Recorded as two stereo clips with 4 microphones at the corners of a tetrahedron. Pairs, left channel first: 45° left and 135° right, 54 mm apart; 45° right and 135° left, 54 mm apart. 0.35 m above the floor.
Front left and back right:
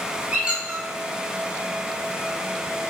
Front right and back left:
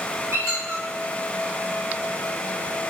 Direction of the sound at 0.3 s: 160° left.